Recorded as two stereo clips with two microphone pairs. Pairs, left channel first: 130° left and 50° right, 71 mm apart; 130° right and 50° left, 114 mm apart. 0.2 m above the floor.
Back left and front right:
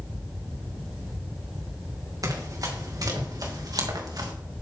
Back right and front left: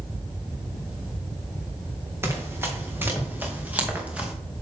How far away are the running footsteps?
About 4 m.